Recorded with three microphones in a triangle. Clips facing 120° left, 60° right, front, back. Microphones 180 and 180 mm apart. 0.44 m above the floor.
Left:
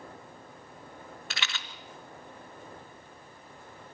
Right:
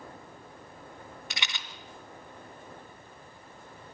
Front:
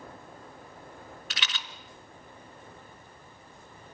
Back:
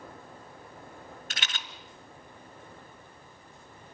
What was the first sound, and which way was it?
A rattle, 135° right.